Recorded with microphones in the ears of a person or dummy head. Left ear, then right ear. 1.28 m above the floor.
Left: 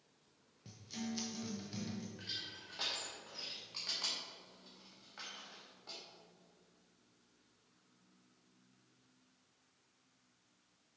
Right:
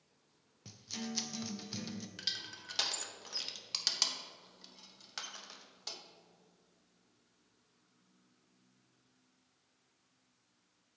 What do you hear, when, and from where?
0.7 s a guitar: 25° right (ahead or behind), 0.7 m
2.2 s crushing: 75° right (ahead or behind), 1.0 m